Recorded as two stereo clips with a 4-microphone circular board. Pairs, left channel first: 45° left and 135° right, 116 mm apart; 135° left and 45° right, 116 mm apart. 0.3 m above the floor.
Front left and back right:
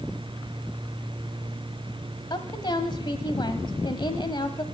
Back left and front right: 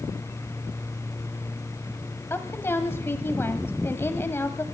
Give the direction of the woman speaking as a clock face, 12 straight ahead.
10 o'clock.